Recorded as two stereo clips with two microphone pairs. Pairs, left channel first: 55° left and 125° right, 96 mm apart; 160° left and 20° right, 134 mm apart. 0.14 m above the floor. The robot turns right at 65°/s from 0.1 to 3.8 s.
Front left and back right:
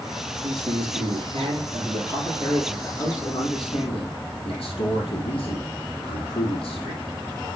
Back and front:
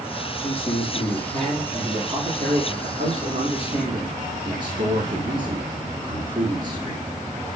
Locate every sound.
0.4 s a man speaking: 175° left, 3.5 m; by 7.0 s 35° left, 3.5 m